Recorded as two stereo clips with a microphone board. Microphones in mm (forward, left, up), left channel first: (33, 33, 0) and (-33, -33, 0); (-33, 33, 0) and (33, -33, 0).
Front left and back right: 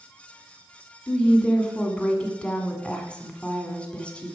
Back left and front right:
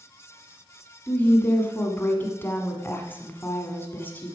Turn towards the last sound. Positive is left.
turn(degrees=110)